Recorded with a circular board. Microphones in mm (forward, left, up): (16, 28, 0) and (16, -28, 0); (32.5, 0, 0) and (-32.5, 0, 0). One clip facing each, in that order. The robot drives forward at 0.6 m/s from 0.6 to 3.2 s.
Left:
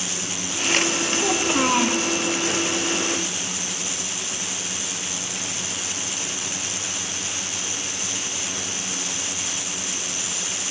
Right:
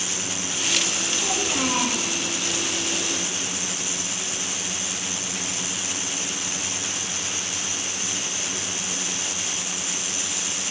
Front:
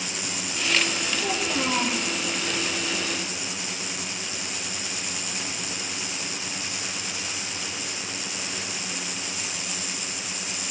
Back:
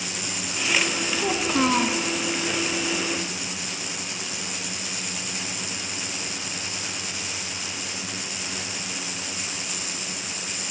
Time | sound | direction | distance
1.2 | a child speaking | 140° left | 1.5 m